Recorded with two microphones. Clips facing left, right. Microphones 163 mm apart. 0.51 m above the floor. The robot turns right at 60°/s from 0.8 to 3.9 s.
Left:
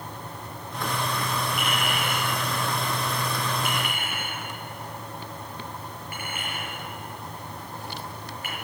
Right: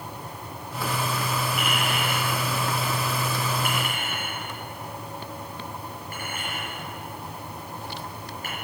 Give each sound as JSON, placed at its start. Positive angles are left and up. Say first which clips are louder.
{"t": 1.6, "sound": "a clink", "louder": "right 1 dB", "side_deg": 0, "distance_m": 7.5}